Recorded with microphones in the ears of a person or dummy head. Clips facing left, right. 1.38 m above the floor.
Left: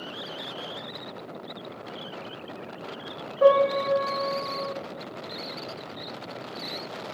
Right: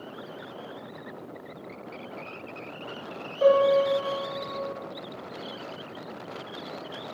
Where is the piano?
25° left (ahead or behind), 1.3 m.